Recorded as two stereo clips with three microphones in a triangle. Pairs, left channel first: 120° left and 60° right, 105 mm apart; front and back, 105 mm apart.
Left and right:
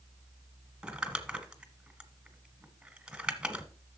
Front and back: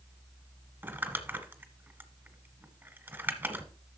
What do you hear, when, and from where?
0.8 s crumpling: 135° right, 1.3 m